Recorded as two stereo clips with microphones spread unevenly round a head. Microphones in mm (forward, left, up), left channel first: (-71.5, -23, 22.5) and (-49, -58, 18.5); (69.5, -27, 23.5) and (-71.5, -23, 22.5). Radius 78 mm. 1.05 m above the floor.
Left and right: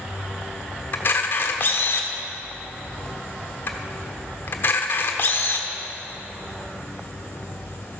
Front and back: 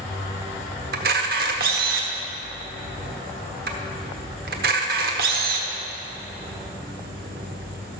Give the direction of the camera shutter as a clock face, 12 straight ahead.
7 o'clock.